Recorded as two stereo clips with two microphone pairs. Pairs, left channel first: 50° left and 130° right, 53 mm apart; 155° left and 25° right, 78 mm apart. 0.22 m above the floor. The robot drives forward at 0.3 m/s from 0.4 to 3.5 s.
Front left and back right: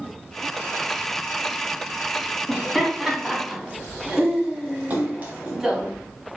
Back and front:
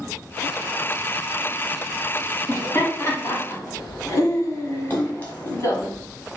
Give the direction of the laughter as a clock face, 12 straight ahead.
7 o'clock.